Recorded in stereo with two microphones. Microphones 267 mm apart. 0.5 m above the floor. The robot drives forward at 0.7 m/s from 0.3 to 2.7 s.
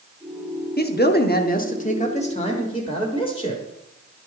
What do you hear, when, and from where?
0.8 s a man speaking: 35° left (ahead or behind), 0.8 m; by 3.6 s 20° left (ahead or behind), 1.4 m